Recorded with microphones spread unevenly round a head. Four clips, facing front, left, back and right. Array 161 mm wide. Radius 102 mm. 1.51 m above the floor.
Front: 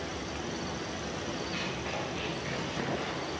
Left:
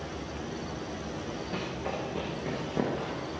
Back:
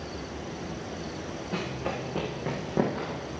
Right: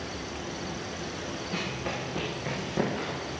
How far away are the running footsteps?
About 8.5 m.